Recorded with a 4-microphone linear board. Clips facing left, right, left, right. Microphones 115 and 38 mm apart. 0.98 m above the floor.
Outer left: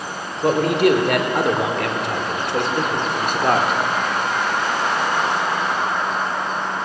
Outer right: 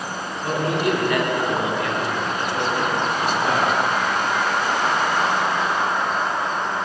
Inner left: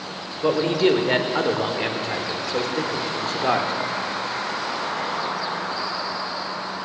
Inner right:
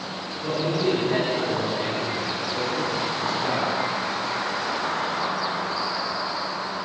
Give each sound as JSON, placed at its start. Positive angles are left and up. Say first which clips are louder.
{"t": 0.4, "sound": "a man speaking", "louder": "outer left 6 dB, inner left 5 dB", "side_deg": 85, "distance_m": 3.0}